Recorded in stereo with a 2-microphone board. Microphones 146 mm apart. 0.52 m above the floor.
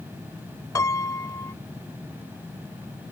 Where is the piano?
20° left (ahead or behind).